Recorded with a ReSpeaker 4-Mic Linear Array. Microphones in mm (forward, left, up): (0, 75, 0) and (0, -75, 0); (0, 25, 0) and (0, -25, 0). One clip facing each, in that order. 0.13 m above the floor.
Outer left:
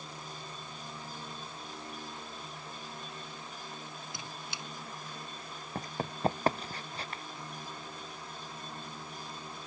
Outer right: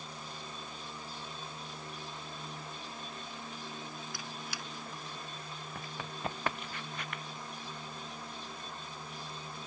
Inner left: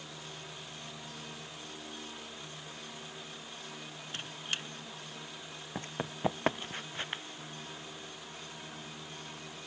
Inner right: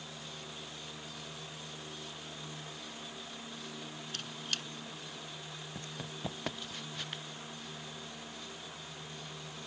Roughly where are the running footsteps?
Left.